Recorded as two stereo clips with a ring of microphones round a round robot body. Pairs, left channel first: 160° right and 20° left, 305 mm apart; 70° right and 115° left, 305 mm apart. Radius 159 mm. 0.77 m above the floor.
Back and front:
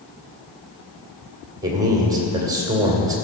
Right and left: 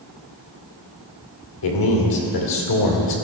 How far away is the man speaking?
About 2 m.